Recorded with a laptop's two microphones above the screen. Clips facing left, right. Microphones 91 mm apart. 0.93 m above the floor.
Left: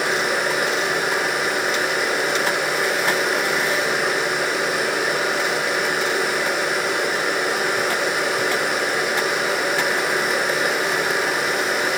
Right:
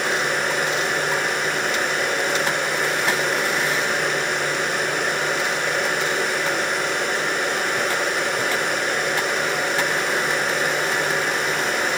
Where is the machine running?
5° left (ahead or behind), 5.5 m.